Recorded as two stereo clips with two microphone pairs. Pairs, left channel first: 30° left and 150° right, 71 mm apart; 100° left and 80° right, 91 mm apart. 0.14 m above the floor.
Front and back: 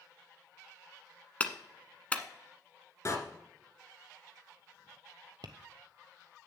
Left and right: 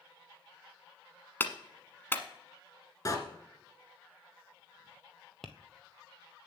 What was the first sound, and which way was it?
A clap, 70° left.